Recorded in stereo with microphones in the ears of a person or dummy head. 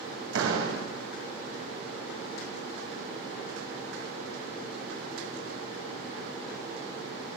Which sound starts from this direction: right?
A door slam, at 0.3 s.